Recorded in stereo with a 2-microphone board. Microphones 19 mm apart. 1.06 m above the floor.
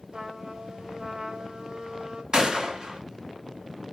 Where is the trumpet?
45° right (ahead or behind), 1.1 m.